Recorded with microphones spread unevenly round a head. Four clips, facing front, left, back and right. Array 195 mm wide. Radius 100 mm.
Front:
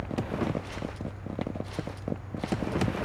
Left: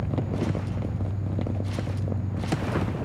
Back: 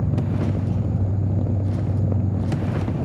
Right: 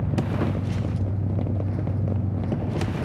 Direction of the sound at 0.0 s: 165° right.